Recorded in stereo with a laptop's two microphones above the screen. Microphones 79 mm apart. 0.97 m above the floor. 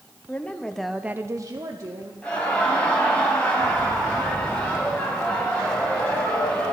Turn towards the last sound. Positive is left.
turn(degrees=15)  # may be behind; listen again after turning